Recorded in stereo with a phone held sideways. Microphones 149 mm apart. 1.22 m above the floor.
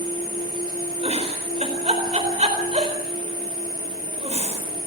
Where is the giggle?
50° right (ahead or behind), 4.5 m.